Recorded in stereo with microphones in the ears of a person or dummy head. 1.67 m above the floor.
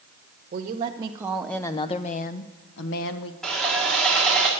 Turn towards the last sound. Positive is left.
turn(degrees=0)  # may be behind; listen again after turning